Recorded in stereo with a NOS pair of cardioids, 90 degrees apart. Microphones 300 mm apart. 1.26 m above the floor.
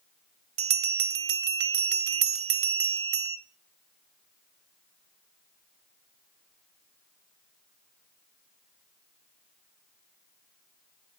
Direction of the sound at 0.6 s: 50° right.